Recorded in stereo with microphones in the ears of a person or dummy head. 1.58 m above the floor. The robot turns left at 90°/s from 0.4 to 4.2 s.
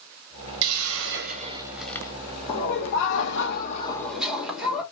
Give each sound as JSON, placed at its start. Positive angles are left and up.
{"t": 0.6, "sound": "a hiss", "azimuth_deg": -75, "distance_m": 0.6}
{"t": 2.5, "sound": "laughter", "azimuth_deg": 150, "distance_m": 1.7}